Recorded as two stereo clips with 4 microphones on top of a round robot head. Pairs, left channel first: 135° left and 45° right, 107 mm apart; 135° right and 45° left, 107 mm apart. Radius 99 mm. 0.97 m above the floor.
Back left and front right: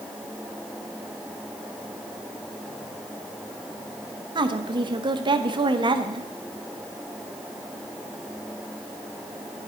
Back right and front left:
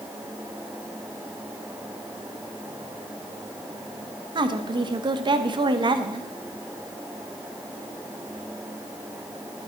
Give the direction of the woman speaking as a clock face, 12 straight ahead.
12 o'clock.